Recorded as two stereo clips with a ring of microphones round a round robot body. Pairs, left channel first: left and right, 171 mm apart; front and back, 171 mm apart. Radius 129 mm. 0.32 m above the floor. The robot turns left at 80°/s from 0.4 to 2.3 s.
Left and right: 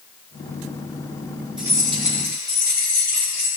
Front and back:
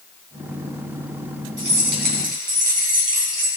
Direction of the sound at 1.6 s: 160° right.